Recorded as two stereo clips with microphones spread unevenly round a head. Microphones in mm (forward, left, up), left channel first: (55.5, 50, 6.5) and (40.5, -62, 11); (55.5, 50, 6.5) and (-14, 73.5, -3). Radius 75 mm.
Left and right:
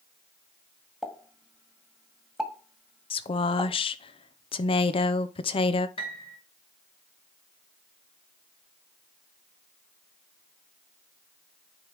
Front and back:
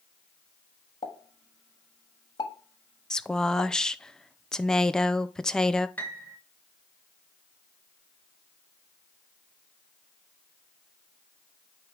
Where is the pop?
10° right, 1.6 m.